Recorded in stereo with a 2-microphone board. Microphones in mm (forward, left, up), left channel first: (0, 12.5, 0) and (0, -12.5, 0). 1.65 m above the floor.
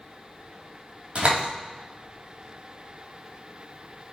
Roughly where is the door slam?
Right.